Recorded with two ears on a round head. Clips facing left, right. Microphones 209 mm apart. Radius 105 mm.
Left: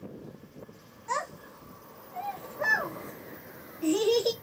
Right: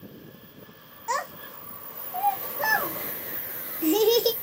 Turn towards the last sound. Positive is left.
turn(degrees=-55)  # may be behind; listen again after turning